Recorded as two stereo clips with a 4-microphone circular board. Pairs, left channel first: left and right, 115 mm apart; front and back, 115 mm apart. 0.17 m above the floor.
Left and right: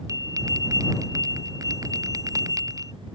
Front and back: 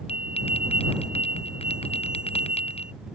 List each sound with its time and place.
0.1 s a bell: 30° right